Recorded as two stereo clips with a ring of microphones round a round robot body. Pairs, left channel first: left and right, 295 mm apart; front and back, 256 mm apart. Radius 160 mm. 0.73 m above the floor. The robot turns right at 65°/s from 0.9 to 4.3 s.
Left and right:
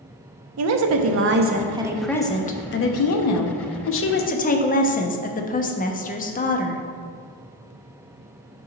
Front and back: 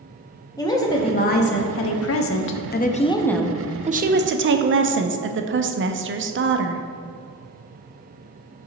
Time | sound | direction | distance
0.6 | a woman speaking | 75° right | 0.7 m